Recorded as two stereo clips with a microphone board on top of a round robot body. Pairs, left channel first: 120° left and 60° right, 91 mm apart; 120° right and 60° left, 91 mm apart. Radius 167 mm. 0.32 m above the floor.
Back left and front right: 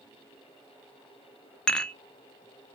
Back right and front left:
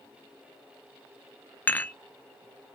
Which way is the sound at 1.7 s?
165° right.